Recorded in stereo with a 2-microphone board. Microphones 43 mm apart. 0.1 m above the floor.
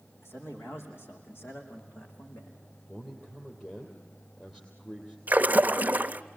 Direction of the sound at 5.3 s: 40° right (ahead or behind).